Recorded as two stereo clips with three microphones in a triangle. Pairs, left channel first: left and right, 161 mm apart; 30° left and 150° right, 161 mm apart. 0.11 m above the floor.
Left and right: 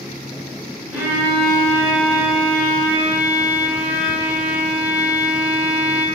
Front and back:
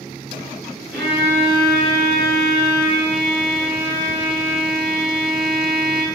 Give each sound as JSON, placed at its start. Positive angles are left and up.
{"t": 0.9, "sound": "a violin", "azimuth_deg": -25, "distance_m": 1.7}